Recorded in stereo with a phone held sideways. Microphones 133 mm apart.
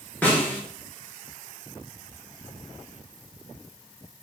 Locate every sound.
0.2 s a snare drum: 10° left (ahead or behind), 0.9 m